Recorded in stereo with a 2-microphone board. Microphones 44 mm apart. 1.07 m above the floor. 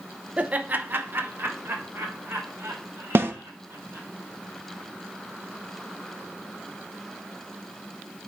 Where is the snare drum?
55° right (ahead or behind), 0.7 m.